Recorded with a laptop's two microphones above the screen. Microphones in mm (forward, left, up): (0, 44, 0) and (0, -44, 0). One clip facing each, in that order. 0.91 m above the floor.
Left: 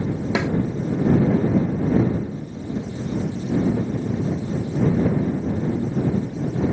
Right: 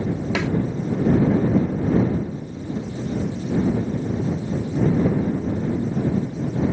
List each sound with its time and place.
0.3 s a snare drum: 15° left (ahead or behind)